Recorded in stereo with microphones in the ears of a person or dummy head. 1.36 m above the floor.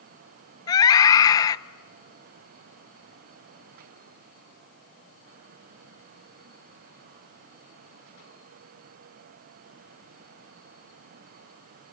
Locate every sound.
0.7 s a scream: 25° left (ahead or behind), 0.8 m